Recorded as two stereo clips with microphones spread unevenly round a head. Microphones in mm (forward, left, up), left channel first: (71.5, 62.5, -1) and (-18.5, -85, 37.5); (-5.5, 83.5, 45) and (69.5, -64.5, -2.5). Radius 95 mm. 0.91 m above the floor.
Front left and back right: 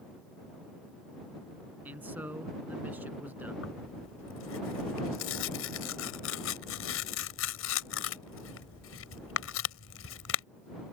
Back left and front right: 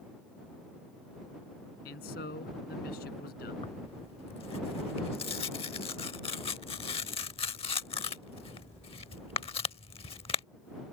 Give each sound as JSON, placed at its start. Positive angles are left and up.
{"t": 1.9, "sound": "a man speaking", "azimuth_deg": 160}
{"t": 3.6, "sound": "tearing paper", "azimuth_deg": 60}